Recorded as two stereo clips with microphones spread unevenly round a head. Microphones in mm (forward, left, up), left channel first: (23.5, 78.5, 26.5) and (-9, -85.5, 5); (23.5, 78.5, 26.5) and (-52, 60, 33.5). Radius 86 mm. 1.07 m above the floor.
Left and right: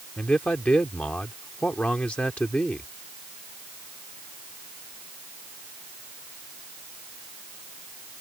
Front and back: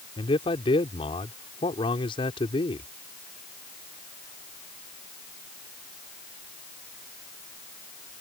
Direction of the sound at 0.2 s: 5° right.